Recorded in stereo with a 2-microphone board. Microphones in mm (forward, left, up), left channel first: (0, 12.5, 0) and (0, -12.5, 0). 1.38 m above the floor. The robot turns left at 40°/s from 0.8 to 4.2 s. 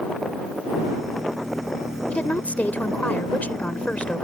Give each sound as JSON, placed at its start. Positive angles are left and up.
{"t": 2.1, "sound": "a woman speaking", "azimuth_deg": 125}